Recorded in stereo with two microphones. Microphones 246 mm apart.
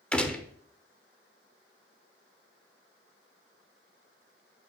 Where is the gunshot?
5° left (ahead or behind), 1.0 m.